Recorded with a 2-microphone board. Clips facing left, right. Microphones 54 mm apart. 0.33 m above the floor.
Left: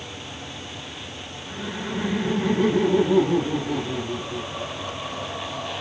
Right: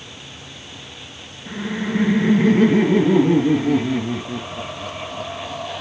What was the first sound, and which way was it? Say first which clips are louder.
Laughter: right 7 dB; 60° right (ahead or behind).